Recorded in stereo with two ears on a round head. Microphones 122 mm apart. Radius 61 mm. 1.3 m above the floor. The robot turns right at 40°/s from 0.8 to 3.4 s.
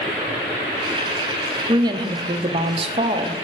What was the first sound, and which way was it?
A woman speaking, 135° right.